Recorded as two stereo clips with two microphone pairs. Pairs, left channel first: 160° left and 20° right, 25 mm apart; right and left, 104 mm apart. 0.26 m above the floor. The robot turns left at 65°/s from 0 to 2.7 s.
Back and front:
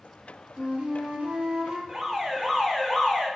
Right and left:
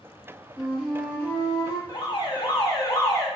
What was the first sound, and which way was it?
A flute, 15° left.